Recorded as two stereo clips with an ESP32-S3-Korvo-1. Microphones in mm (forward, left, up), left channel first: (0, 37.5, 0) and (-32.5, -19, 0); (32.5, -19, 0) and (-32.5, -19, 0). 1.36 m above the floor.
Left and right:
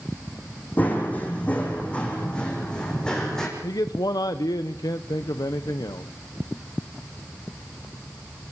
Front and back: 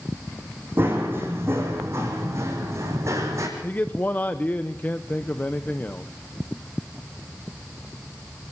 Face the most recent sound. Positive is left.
turn(degrees=60)